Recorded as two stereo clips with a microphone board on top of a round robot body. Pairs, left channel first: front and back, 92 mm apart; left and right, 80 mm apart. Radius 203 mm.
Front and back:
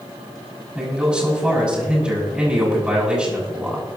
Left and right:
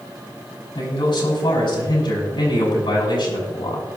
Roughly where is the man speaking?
Left.